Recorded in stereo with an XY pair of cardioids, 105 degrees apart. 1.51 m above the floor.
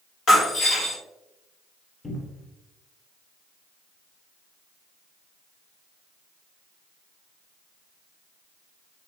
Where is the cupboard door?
20° left, 1.2 m.